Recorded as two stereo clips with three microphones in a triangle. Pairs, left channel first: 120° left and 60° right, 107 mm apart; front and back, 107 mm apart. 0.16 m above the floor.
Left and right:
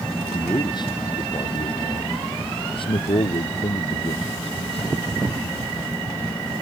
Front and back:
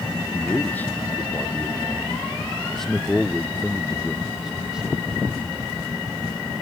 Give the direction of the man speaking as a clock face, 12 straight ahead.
10 o'clock.